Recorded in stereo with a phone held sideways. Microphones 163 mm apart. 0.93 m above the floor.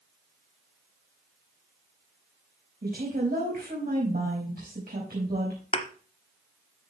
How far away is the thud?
About 1.0 m.